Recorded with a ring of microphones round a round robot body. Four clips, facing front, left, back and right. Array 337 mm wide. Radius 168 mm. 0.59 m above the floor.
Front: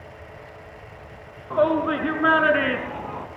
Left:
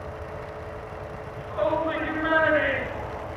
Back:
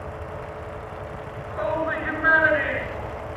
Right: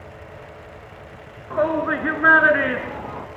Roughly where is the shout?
Ahead right.